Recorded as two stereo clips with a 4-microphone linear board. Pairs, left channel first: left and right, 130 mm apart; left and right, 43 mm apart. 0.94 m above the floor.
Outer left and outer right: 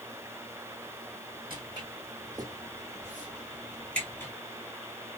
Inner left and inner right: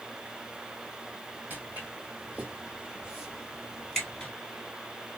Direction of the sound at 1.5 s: 40° right (ahead or behind).